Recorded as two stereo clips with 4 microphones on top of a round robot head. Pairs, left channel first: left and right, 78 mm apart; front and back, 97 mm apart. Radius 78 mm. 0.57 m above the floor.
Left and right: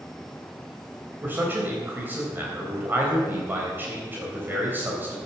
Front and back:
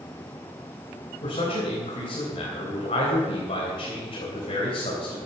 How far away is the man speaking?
About 3.5 m.